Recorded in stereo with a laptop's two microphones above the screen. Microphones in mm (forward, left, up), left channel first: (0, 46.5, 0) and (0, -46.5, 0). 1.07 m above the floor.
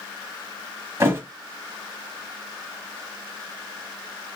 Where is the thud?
30° right (ahead or behind), 1.0 m.